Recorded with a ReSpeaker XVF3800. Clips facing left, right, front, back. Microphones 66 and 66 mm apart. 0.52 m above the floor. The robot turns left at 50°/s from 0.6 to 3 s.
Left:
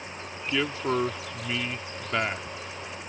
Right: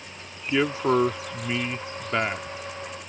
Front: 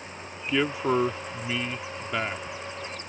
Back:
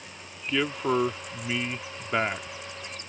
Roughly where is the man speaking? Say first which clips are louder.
Right 5 dB, front 1 dB; right.